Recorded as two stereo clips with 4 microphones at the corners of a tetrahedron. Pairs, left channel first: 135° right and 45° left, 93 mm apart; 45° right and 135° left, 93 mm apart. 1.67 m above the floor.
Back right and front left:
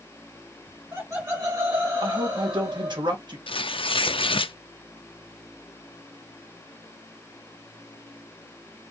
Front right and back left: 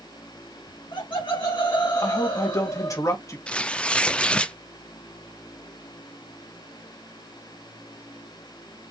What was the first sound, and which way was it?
Laughter, 15° right.